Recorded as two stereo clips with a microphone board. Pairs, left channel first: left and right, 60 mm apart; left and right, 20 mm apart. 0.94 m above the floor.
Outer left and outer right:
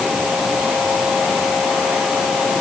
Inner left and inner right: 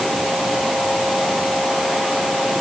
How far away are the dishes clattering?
I don't hear dishes clattering.